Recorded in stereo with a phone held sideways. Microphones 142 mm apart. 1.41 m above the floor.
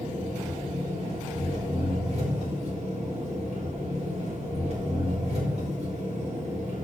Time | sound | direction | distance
0.0 | an engine running | 50° right (ahead or behind) | 4 m